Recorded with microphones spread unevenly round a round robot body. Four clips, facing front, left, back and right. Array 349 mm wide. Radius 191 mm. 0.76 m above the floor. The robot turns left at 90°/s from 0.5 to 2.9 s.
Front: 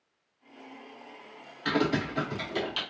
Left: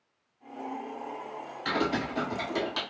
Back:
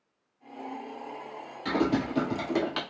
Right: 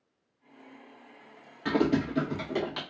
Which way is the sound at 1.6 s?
105° right.